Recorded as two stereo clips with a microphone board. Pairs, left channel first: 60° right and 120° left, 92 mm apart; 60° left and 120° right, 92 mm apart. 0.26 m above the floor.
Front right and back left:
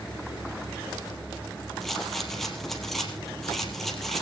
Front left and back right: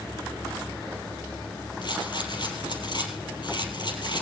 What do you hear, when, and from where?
1.8 s a rattle: 25° left, 3.5 m